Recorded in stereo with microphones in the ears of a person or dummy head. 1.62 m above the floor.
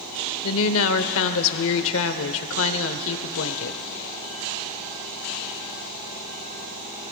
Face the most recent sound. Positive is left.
turn(degrees=75)  # may be behind; listen again after turning